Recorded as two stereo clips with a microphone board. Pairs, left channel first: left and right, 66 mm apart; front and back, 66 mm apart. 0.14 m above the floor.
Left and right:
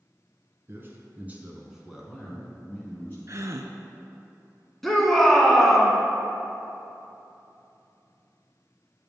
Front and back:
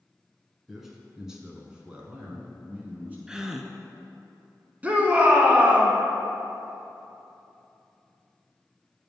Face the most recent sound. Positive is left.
turn(degrees=170)